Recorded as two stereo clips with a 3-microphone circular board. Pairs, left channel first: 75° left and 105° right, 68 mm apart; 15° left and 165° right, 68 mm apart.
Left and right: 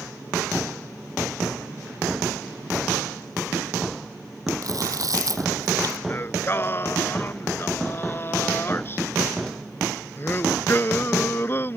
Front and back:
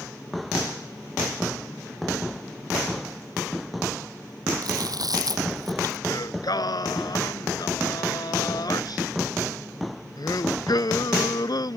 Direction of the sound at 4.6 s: 140° right.